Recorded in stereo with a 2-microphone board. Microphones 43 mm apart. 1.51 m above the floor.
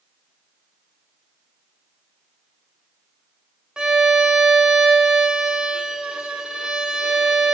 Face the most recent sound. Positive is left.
turn(degrees=-15)  # may be behind; listen again after turning